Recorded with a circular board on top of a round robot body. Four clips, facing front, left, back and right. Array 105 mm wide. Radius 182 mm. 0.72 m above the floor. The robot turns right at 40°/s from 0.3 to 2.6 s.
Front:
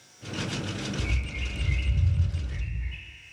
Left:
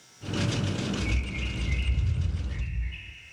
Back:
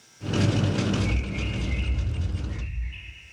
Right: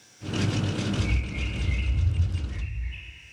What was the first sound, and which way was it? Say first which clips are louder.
A bird: right 1 dB, back 6 dB; 50° right.